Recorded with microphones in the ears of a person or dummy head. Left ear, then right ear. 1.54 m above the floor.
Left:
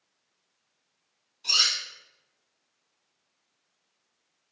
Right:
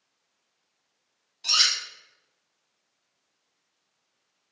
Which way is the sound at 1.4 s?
60° right (ahead or behind).